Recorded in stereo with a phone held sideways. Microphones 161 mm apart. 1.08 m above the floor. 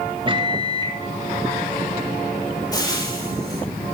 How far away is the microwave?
About 1.2 m.